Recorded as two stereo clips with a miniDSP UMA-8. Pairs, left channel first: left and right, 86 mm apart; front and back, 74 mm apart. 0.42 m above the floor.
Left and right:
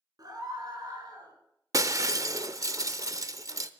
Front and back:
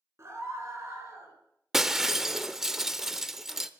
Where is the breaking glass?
100° right, 0.7 m.